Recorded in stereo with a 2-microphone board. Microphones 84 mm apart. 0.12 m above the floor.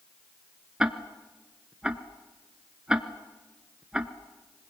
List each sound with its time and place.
0.8 s ticking: 10° right (ahead or behind), 1.1 m